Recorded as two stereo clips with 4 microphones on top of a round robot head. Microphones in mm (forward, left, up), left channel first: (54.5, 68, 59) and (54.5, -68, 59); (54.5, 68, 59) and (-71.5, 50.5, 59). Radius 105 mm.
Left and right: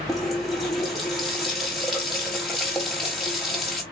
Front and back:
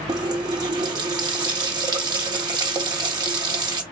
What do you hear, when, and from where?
0.1 s a running tap: straight behind, 0.6 m